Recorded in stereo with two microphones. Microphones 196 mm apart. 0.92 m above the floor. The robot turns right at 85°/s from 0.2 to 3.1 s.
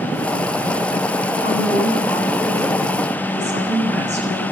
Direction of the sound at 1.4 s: 100° left.